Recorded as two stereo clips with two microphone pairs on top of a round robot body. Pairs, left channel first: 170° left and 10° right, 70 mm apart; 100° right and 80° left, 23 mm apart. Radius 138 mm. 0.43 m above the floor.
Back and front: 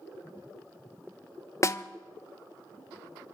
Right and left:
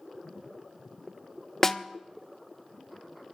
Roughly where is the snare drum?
Behind.